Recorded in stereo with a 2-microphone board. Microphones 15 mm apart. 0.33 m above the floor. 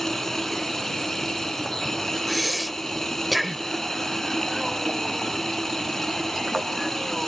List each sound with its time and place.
0.0 s running water: 25° left (ahead or behind)
2.3 s breathing: centre (ahead or behind)